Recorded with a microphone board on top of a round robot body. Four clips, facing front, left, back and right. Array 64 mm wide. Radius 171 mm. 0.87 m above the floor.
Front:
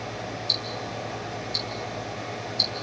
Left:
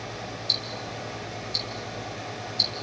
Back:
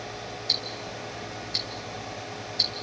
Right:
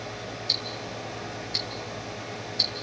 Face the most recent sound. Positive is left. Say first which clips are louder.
# even, front 3 dB
turn(degrees=-135)